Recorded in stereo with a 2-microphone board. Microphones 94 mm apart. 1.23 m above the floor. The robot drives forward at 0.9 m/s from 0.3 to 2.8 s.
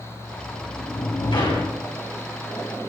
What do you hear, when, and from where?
0.3 s a sliding door: 75° left (ahead or behind), 3.5 m; by 1.8 s 60° left (ahead or behind), 4 m